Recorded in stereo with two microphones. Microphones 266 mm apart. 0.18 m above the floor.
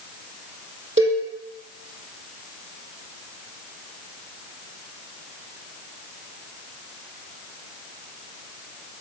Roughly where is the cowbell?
Right.